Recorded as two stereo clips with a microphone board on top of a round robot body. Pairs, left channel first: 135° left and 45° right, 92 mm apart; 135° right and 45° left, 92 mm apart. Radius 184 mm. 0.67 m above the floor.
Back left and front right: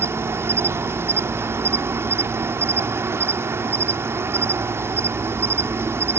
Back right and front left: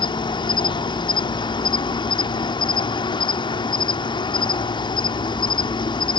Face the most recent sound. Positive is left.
turn(degrees=-105)